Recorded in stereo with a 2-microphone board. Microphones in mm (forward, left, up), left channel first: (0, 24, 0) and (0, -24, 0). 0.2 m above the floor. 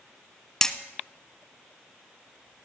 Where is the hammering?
15° left (ahead or behind), 0.9 m.